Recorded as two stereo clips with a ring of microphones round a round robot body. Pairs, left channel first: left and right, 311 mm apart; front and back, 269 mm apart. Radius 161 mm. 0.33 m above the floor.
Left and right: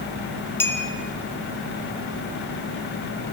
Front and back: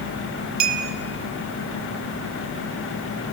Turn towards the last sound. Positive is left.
turn(degrees=175)